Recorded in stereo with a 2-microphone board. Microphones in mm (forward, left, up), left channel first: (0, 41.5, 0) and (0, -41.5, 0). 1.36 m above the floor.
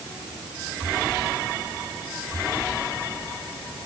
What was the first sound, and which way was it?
Only background noise.